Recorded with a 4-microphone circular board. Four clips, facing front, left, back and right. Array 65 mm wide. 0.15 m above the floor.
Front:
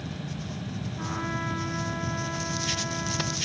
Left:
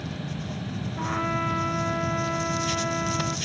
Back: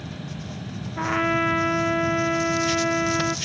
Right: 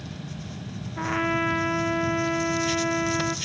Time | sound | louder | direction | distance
1.0 | a trumpet | right 3 dB, back 11 dB | 155° right | 1.1 m